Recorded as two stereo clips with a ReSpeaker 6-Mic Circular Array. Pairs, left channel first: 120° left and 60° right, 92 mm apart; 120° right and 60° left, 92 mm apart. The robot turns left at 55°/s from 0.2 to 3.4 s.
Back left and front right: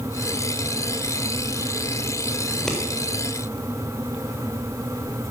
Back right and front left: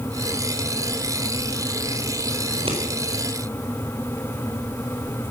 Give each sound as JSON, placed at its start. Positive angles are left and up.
{"t": 2.5, "sound": "scissors", "azimuth_deg": 50, "distance_m": 4.0}